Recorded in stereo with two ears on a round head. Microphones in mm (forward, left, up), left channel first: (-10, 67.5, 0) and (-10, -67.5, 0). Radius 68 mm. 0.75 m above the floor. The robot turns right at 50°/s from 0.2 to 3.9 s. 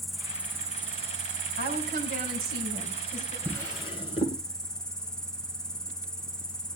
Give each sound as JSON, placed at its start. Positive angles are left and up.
{"t": 0.0, "sound": "an insect", "azimuth_deg": 180, "distance_m": 0.8}
{"t": 1.6, "sound": "a woman speaking", "azimuth_deg": -80, "distance_m": 5.5}
{"t": 3.5, "sound": "a drawer", "side_deg": 15, "distance_m": 2.0}